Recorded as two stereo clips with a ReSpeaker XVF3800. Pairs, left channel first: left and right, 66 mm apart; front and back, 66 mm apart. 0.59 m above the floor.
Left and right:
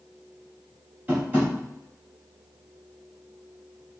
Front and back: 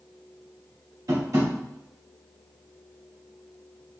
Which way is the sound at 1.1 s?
150° right.